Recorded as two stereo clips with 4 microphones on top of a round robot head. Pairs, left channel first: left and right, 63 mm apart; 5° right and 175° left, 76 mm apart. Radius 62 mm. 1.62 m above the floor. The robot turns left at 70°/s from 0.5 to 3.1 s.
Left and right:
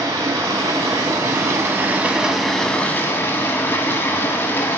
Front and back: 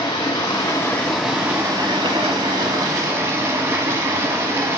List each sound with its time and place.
0.0 s running water: 50° right, 1.1 m; by 4.8 s 130° left, 1.1 m